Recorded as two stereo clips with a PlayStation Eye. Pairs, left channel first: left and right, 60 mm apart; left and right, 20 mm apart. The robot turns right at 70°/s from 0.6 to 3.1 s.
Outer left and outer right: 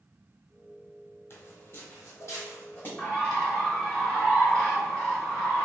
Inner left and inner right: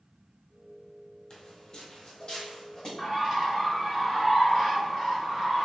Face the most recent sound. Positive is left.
turn(degrees=5)  # may be behind; listen again after turning